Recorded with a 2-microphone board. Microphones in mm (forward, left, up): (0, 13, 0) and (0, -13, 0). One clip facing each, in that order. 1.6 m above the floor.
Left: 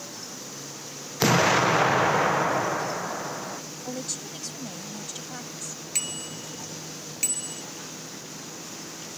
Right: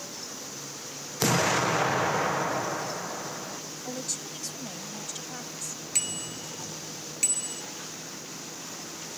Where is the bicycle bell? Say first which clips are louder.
Even; centre (ahead or behind).